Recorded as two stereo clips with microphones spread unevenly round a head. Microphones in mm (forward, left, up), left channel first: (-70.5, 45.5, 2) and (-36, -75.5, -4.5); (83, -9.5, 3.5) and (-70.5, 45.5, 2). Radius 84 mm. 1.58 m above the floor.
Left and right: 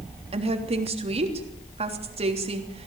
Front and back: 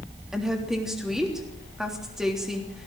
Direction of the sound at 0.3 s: 110° right.